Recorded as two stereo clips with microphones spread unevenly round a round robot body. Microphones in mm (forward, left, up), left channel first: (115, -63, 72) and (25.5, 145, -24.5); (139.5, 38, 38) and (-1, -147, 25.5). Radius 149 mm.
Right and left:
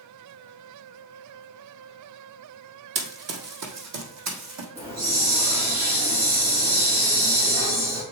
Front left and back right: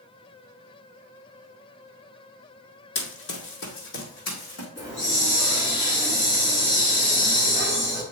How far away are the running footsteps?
About 1.4 m.